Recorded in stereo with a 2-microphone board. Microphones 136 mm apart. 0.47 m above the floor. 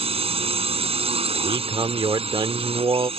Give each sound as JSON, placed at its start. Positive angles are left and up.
{"t": 0.0, "sound": "a drone", "side_deg": -45}
{"t": 1.3, "sound": "a man speaking", "side_deg": -40}